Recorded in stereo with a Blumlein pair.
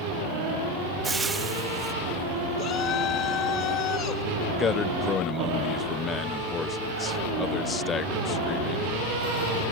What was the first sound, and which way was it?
Frying, 10° right.